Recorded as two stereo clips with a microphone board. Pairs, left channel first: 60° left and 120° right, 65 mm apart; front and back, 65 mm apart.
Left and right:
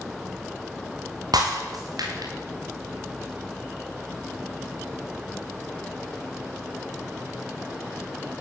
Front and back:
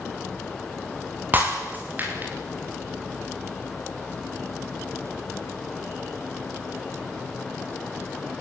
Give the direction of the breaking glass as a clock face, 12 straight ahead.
4 o'clock.